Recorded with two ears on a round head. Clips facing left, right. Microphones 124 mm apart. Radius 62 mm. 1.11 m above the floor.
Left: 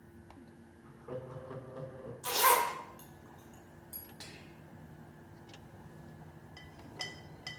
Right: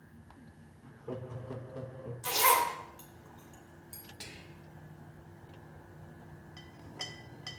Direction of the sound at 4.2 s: 15° right (ahead or behind).